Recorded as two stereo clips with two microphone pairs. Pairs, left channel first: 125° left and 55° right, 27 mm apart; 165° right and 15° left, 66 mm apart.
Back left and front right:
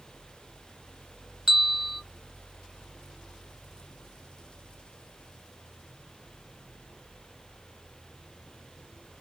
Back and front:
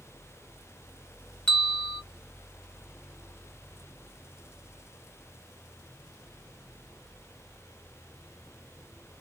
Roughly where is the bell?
Right.